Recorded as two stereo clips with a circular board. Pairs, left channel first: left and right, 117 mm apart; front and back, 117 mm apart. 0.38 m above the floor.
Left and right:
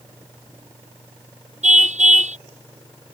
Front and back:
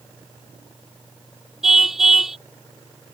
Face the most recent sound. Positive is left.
turn(degrees=-95)